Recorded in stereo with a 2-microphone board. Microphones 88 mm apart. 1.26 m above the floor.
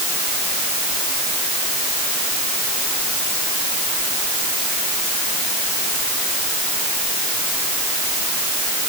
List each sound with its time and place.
Only background noise.